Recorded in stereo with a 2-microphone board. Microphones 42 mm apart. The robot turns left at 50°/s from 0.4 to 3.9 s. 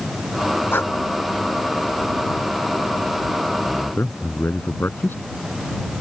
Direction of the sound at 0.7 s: 55° left (ahead or behind).